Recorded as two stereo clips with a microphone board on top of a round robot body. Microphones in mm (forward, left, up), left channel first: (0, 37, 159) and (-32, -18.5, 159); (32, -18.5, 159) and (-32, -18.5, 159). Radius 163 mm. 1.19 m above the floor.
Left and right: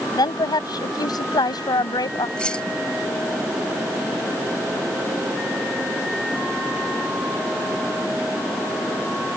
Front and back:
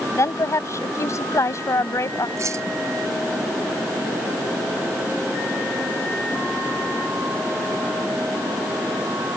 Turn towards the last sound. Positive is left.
turn(degrees=135)